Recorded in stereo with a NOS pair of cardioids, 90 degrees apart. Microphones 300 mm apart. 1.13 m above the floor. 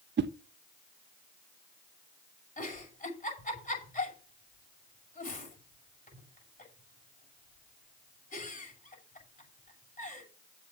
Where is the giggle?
25° left, 7.5 m.